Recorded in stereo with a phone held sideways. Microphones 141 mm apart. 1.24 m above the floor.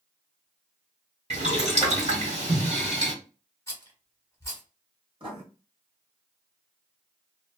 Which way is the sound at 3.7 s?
20° left (ahead or behind).